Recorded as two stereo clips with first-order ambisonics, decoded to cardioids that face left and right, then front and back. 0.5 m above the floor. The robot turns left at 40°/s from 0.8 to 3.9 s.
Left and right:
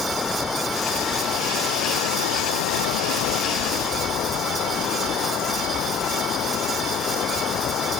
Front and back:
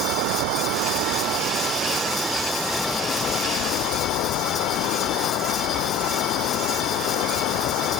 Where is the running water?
160° left; by 8.0 s 40° left.